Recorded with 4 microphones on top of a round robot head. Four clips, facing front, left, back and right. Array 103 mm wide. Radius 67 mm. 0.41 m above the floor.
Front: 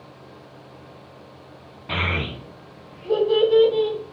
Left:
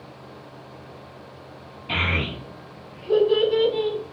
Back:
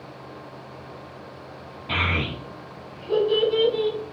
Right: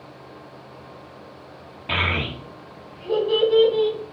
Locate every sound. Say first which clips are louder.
1.9 s a child speaking: right 1 dB, even; 65° right, 1.3 m; by 4.0 s 40° right, 3.5 m